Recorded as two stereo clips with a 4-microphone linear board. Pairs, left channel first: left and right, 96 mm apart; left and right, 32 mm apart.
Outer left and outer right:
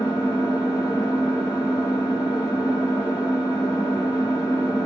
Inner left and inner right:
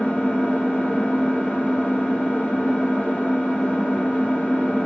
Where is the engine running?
45° left (ahead or behind), 2.5 m.